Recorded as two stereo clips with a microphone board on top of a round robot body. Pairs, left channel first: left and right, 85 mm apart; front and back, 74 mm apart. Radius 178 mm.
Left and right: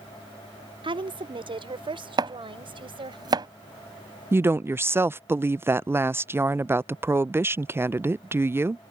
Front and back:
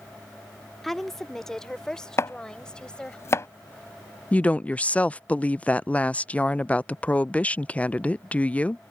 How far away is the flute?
No flute in this recording.